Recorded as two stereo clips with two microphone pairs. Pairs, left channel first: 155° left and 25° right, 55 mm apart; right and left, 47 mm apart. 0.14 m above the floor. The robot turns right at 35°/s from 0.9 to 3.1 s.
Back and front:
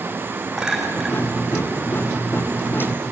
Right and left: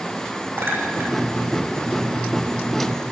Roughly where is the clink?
Ahead left.